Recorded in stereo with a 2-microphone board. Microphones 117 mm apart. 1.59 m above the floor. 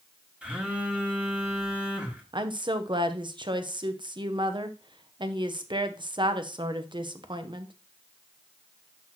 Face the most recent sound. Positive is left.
turn(degrees=-45)  # may be behind; listen again after turning